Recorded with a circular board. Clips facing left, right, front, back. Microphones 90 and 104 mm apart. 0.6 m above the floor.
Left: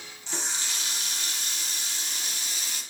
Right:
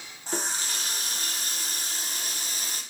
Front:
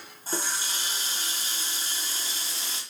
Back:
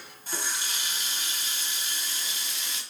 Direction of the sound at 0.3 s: 50° right.